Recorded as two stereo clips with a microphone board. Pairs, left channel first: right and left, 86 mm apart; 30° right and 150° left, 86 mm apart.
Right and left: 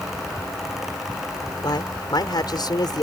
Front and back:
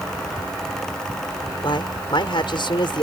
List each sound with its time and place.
1.6 s a man speaking: 55° right